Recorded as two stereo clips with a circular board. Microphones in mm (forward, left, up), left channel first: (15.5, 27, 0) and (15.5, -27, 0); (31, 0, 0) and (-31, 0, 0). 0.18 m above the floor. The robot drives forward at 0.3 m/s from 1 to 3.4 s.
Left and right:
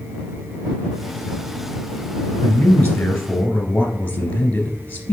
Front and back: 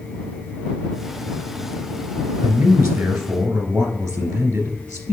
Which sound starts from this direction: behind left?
A man speaking, at 2.4 s.